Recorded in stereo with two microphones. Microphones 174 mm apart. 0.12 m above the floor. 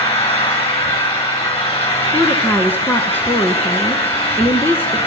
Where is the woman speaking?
10° left (ahead or behind), 1.3 m.